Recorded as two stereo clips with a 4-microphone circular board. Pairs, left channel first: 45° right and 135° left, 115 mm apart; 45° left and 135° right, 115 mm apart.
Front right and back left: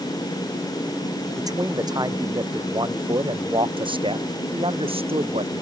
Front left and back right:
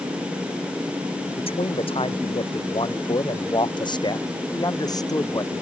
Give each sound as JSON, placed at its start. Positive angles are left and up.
{"t": 1.4, "sound": "a man speaking", "azimuth_deg": 80}